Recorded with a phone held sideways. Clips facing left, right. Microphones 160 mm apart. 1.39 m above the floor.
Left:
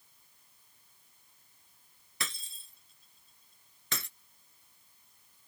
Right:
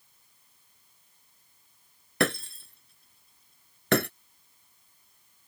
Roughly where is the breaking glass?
Right.